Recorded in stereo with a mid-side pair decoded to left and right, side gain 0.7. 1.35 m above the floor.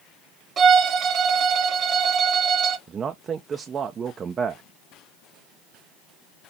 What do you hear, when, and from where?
0.6 s a violin: 35° right, 1.1 m
2.9 s a man speaking: 30° right, 0.6 m